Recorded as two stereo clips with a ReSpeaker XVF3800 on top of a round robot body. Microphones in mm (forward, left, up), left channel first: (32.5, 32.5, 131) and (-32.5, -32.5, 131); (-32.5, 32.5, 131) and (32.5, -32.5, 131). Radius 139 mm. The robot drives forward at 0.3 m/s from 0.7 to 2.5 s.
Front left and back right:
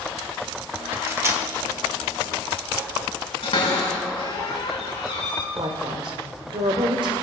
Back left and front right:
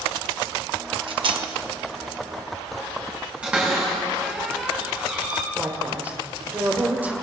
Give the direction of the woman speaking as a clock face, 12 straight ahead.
4 o'clock.